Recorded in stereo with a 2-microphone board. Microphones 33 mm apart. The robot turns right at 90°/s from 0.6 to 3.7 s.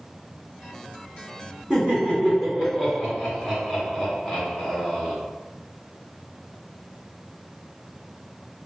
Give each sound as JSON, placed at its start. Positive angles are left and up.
{"t": 1.7, "sound": "laughter", "side_deg": -25, "distance_m": 1.7}